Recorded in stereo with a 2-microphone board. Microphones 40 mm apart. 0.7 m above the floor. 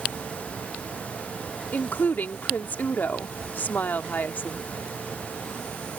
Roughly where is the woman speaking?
Left.